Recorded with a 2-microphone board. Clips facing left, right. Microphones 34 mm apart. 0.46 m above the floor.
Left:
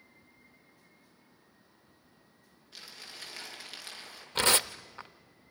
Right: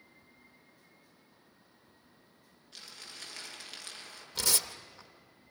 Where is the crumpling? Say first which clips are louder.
Left 1 dB; 5° left (ahead or behind), 5.5 m.